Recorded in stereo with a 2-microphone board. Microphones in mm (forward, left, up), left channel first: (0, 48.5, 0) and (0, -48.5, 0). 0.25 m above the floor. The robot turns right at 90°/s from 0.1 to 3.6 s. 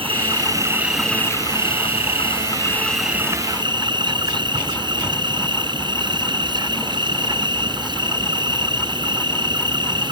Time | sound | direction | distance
0.0 | an insect | 80° right | ?